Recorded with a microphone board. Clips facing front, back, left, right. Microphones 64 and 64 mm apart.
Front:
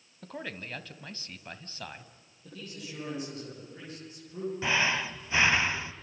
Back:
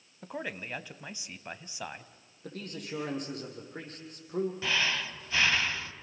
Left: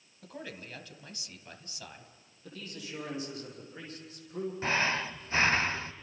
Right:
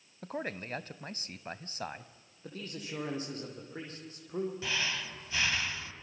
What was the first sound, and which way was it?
A man speaking, 110° right.